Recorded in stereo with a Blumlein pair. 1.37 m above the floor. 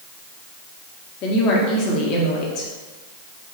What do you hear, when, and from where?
1.2 s a woman speaking: 35° left, 1.9 m